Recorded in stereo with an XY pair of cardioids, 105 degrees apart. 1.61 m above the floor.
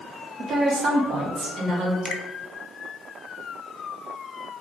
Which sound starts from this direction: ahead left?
A finger snap, at 2.0 s.